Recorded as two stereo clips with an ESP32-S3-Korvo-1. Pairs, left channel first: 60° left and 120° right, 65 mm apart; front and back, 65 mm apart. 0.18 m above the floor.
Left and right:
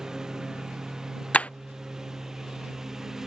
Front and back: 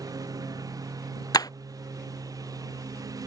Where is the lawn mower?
160° left.